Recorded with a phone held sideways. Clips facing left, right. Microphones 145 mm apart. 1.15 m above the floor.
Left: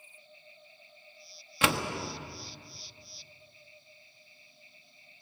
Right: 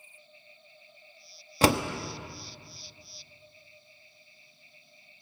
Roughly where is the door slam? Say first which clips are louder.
Right 6 dB; right.